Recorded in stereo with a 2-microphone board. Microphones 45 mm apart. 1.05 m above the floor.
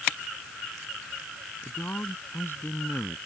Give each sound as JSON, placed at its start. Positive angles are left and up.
{"t": 1.6, "sound": "a man speaking", "side_deg": 50}